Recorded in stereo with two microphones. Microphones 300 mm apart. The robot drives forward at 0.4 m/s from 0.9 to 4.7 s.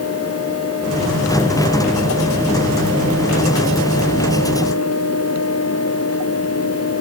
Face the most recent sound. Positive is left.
No sound to turn to.